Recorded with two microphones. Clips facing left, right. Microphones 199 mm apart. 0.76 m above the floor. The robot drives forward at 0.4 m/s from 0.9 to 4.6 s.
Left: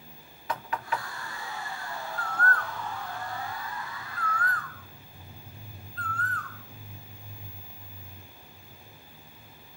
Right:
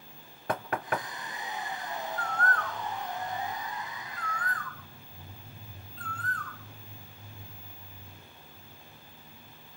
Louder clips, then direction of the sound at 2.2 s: Left 2 dB; 60° left (ahead or behind).